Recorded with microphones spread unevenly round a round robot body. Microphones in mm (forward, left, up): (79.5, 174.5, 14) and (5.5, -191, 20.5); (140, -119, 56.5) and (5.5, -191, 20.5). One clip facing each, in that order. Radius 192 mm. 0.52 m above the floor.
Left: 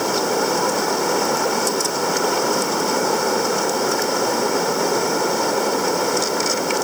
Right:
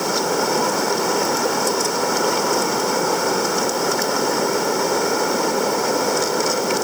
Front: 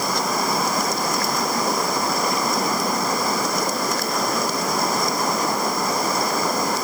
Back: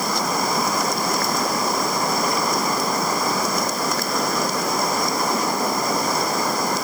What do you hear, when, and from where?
Only background noise.